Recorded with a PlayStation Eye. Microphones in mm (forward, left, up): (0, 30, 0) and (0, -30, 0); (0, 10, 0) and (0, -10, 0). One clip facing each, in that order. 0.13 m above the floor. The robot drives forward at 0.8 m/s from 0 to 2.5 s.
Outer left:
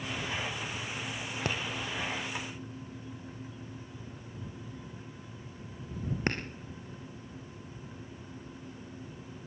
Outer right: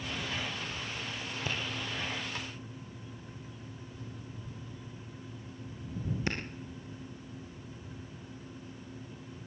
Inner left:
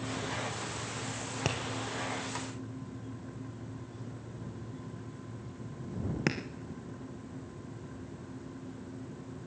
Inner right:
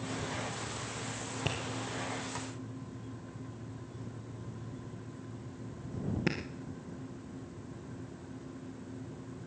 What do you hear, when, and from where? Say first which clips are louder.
1.4 s tapping: outer left 2 dB, inner left 2 dB; 70° left (ahead or behind), 1.9 m; by 6.4 s 50° left (ahead or behind), 2.5 m